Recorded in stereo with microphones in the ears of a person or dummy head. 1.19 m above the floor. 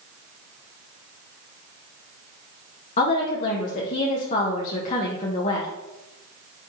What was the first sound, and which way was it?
A woman speaking, 50° left (ahead or behind).